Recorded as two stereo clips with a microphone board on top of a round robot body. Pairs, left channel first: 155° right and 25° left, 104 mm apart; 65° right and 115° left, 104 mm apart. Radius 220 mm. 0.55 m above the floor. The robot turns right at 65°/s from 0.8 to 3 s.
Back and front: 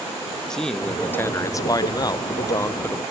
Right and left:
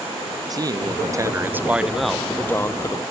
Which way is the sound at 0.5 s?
120° left.